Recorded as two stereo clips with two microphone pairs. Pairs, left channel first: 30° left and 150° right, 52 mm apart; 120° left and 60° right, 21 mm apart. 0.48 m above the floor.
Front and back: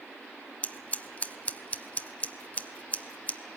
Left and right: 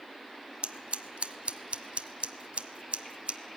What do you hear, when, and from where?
0.6 s scissors: 35° right, 0.9 m